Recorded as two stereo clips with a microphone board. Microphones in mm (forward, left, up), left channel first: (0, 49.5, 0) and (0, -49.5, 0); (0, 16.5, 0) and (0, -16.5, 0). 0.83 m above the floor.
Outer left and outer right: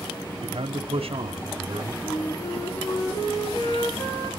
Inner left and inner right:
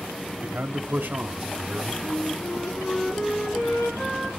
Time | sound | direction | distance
0.4 | a man speaking | 70° right (ahead or behind) | 1.6 m
2.0 | a flute | 75° left (ahead or behind) | 9.5 m